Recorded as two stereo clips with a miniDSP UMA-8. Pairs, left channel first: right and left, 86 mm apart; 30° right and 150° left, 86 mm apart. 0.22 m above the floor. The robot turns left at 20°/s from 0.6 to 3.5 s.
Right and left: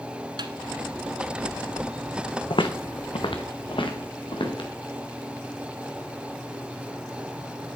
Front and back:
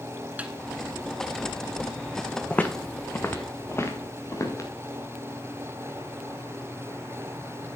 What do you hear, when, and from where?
0.4 s a snare drum: 80° left, 1.1 m
2.5 s footsteps: 105° right, 1.0 m; by 4.7 s 80° right, 3 m